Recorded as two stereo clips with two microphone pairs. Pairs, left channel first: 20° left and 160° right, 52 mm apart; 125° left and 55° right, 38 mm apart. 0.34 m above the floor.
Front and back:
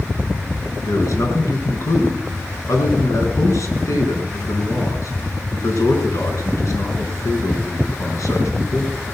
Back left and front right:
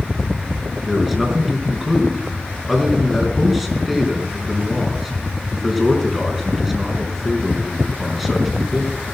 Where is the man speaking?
30° left, 4.5 m.